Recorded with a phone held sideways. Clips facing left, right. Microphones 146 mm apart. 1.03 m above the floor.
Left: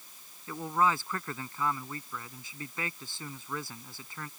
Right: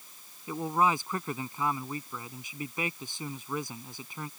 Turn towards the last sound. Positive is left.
turn(degrees=-15)  # may be behind; listen again after turning